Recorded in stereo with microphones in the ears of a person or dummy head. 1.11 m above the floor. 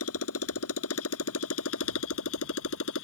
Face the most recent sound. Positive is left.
turn(degrees=75)  # may be behind; listen again after turning